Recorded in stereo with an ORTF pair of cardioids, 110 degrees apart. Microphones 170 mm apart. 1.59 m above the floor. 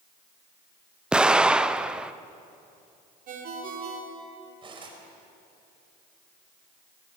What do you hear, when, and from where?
1.1 s an explosion: 5° right, 0.7 m
3.3 s a ringtone: 65° right, 3.5 m
4.6 s cutlery clinking: 35° right, 5 m